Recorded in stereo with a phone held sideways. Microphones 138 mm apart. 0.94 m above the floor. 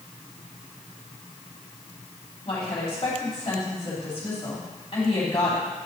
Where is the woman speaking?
45° left (ahead or behind), 3 m.